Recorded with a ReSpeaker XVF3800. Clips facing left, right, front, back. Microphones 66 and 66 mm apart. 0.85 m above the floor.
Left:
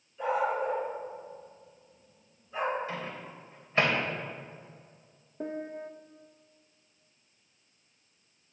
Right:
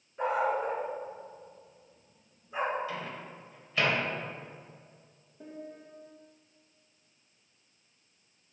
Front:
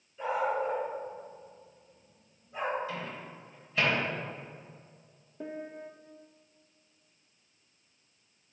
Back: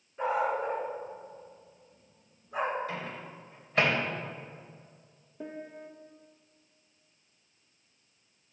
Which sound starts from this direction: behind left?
A microwave, at 2.9 s.